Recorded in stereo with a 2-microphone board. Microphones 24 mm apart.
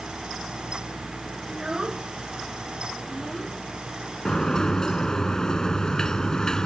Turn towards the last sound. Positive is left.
turn(degrees=25)  # may be behind; listen again after turning